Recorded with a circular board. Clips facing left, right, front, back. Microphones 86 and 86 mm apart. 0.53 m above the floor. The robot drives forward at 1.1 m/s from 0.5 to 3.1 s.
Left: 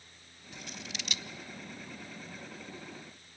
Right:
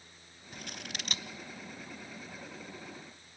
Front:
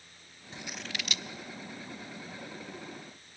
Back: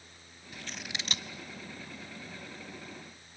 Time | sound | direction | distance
0.5 | scissors | 55° right | 0.6 m